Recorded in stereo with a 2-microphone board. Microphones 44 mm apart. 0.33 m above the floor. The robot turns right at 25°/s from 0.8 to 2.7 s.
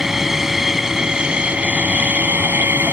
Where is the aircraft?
170° right; by 2.9 s 125° right.